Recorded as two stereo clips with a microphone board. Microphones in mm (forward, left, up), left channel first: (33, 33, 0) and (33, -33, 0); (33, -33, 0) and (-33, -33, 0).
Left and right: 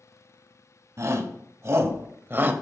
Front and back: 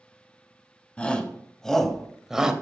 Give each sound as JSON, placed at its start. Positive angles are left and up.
{"t": 1.0, "sound": "a shout", "azimuth_deg": -70, "distance_m": 2.0}